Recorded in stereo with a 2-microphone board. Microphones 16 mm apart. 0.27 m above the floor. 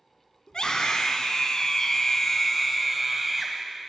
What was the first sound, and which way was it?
A scream, 65° left (ahead or behind).